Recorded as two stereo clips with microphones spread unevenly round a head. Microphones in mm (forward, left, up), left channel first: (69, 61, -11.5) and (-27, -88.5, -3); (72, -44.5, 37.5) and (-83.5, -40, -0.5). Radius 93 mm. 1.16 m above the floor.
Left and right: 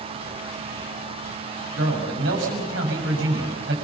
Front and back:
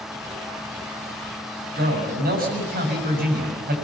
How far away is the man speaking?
About 6.5 m.